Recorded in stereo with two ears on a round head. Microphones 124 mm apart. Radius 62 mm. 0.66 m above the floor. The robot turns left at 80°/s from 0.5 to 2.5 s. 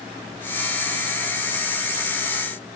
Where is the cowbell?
I don't hear a cowbell.